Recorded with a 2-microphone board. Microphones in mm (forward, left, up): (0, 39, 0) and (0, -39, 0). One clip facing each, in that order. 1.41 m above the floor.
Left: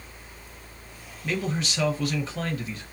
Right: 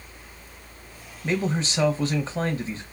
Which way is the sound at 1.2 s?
30° right (ahead or behind).